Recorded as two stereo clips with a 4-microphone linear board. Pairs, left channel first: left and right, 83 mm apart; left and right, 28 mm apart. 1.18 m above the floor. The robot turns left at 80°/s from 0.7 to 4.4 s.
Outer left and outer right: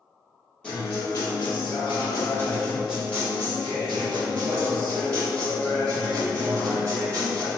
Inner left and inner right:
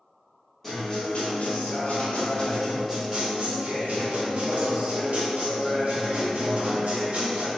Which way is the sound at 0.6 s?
165° left.